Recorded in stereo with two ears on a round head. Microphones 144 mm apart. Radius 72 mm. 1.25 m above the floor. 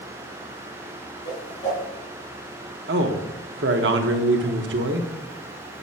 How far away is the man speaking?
About 1.1 m.